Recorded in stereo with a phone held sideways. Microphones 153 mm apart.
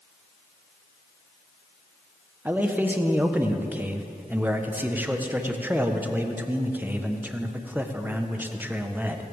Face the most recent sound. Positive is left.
turn(degrees=-10)  # may be behind; listen again after turning